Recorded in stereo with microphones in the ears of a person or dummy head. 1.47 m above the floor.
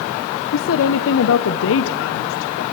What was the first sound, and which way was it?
A woman speaking, 75° left (ahead or behind).